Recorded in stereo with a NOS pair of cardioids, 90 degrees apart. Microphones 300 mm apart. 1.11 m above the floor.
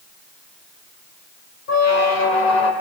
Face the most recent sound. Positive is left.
turn(degrees=65)